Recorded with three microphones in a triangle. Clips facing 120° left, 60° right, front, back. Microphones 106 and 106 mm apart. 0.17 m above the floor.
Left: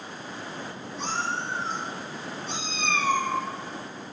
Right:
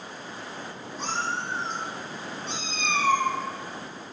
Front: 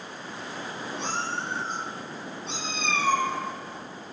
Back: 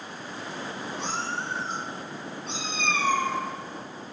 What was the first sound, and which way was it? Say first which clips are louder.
A cat meowing: even, front 1 dB; 15° right.